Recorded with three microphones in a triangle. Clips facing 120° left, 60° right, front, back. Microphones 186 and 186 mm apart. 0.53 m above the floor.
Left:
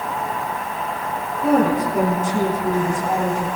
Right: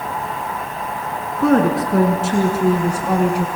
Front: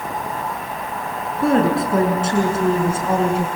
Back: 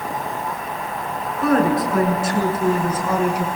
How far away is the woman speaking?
About 5.5 m.